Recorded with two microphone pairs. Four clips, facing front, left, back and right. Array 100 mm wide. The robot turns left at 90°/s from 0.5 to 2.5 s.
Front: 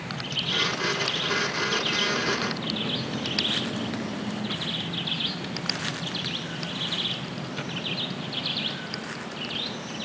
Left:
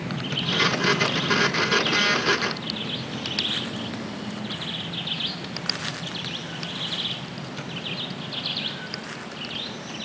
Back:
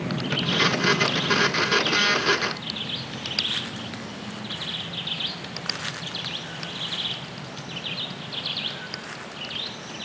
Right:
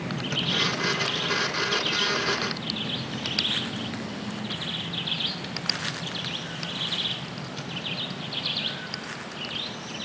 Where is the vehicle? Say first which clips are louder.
Left 1 dB, back 7 dB; 170° right; by 10.1 s 30° left.